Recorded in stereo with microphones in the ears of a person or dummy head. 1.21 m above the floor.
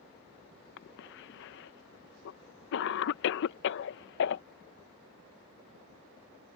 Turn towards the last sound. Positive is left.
turn(degrees=65)  # may be behind; listen again after turning